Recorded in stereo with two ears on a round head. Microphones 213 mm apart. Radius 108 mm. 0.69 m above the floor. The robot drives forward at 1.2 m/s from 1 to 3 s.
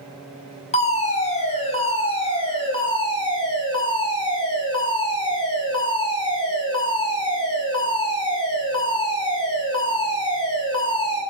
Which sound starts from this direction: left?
A fire alarm, at 0.7 s.